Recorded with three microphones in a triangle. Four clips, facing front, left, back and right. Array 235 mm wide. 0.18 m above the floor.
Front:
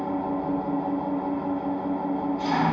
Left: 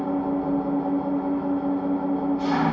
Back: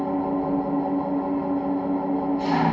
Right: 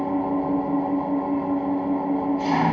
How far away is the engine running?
About 1.0 m.